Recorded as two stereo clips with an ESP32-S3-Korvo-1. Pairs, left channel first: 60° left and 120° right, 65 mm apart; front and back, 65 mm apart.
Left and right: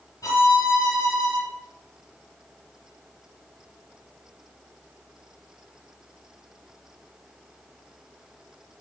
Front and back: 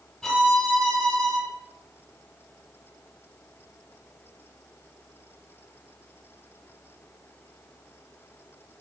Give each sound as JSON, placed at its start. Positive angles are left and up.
{"t": 0.2, "sound": "a violin", "azimuth_deg": 80, "distance_m": 1.3}